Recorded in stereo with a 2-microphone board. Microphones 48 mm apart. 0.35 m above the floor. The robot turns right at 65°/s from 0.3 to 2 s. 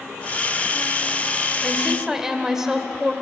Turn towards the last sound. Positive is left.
turn(degrees=-10)  # may be behind; listen again after turning